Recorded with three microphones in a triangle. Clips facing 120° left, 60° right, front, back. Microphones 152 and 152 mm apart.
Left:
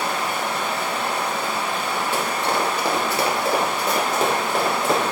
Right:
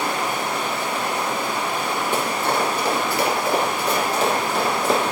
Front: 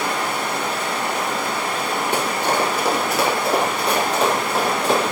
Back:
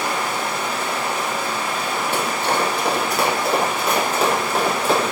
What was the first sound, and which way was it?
Running water, 15° left.